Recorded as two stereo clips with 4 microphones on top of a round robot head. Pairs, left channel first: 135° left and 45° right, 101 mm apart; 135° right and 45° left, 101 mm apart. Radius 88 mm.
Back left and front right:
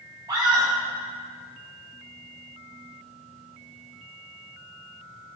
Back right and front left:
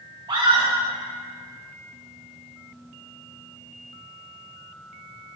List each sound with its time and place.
0.3 s a scream: 5° left, 1.7 m